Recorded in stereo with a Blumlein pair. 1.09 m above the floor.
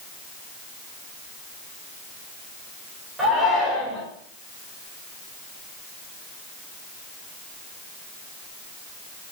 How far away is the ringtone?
I don't hear a ringtone.